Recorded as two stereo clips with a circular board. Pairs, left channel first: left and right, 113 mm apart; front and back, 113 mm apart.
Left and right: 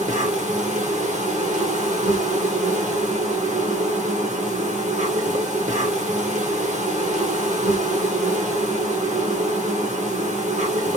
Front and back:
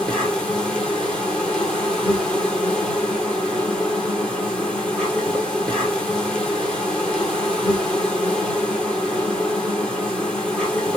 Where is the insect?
80° right, 1.1 m.